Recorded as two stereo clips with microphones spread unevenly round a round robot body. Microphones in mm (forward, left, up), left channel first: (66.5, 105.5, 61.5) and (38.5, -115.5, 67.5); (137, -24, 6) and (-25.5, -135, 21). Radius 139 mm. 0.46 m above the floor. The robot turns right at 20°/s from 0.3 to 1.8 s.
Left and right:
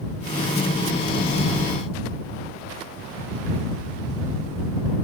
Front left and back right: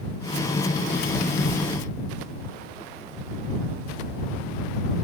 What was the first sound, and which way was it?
Only background noise.